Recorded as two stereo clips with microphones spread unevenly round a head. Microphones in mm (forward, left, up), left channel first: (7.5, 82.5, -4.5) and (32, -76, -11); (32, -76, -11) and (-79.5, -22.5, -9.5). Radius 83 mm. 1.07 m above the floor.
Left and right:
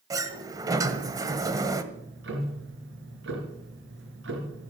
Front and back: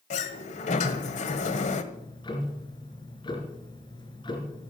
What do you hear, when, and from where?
0.1 s a sliding door: 15° right, 1.4 m
1.9 s ticking: 75° right, 4 m